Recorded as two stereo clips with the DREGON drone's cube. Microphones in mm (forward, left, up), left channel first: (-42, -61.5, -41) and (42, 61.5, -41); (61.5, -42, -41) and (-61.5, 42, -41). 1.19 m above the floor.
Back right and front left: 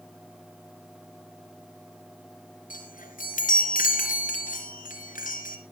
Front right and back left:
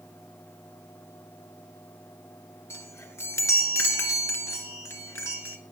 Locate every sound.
2.7 s a chime: 105° right, 3 m